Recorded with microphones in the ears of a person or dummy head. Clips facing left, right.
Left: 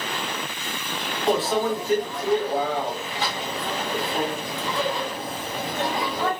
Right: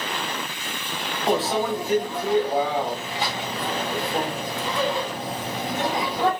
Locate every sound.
1.3 s a microwave: 20° right (ahead or behind), 1.2 m